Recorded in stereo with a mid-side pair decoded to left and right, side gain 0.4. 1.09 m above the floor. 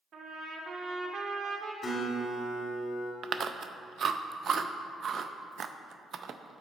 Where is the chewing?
55° right, 0.5 m.